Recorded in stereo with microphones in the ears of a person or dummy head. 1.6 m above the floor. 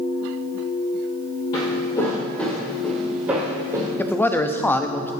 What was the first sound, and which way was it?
Footsteps, 25° left (ahead or behind).